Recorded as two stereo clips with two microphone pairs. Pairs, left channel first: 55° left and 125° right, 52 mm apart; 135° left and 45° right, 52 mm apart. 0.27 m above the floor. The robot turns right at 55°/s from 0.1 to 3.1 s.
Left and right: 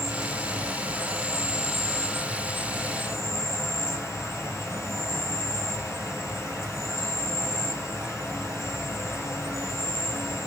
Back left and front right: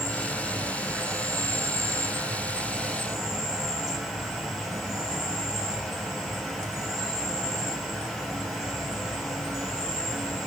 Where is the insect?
125° right, 1.9 m; by 10.5 s 40° left, 1.9 m.